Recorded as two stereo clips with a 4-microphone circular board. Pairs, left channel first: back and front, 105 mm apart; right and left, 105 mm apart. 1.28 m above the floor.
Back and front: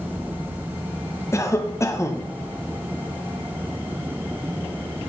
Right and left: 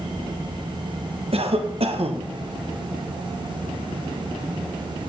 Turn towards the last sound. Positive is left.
turn(degrees=115)